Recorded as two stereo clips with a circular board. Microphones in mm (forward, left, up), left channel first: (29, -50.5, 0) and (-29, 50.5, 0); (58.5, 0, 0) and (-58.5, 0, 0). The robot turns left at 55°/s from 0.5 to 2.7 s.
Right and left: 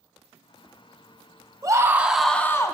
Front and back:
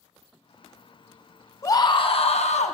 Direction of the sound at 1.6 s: 60° left.